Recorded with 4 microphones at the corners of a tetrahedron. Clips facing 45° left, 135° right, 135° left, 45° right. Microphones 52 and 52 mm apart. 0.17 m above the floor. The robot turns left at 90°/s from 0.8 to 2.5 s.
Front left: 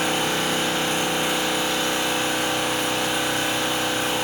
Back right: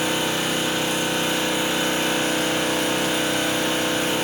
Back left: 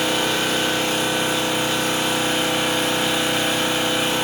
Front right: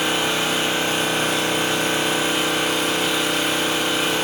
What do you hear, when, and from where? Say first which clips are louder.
0.0 s an engine running: even, even; 20° left, 1.9 m; by 4.2 s 130° right, 1.9 m